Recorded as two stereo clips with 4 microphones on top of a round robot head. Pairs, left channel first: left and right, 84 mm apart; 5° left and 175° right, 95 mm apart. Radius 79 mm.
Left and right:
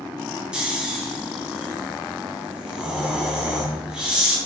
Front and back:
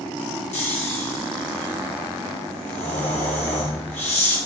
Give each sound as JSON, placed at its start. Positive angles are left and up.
{"t": 0.5, "sound": "snoring", "azimuth_deg": -10, "distance_m": 2.5}